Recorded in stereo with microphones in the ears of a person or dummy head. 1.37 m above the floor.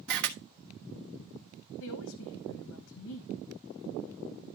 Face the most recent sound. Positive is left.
turn(degrees=80)